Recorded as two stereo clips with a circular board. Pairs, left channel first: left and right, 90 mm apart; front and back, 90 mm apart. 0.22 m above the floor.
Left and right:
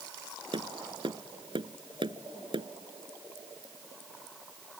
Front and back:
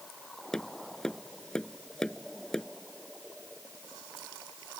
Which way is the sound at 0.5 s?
85° right.